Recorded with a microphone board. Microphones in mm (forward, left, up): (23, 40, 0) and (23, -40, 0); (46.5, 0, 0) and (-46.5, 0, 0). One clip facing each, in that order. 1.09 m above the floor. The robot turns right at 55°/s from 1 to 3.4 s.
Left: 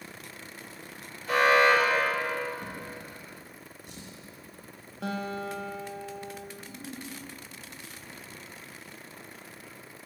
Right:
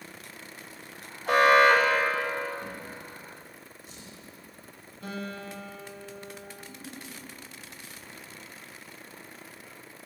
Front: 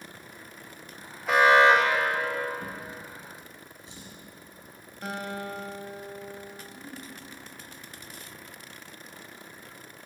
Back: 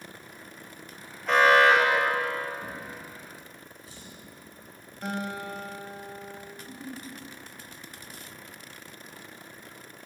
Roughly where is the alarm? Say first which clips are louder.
Right 2 dB, front 1 dB; right.